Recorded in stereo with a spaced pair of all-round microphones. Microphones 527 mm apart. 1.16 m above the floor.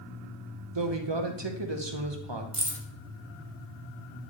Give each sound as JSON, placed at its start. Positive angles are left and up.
{"t": 0.8, "sound": "a man speaking", "side_deg": -55, "distance_m": 1.0}
{"t": 2.5, "sound": "keys jangling", "side_deg": -70, "distance_m": 1.1}